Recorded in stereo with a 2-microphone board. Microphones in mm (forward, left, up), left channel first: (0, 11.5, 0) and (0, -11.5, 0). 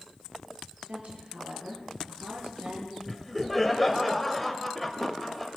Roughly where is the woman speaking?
Right.